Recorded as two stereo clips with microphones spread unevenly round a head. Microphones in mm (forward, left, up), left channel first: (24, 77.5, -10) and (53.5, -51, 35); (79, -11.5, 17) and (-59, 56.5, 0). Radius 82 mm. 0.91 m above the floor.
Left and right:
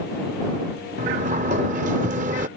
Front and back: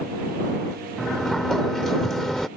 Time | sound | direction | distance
1.0 | a sliding door | 110° right | ?